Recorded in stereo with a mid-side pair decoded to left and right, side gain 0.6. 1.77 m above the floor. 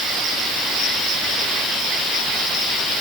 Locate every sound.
Only background noise.